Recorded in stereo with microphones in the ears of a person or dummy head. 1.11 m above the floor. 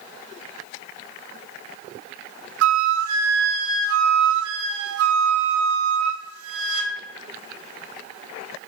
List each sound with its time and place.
2.6 s a flute: 75° right (ahead or behind), 0.8 m